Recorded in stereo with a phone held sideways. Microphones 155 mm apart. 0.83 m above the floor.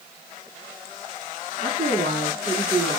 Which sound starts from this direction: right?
A woman speaking, at 1.6 s.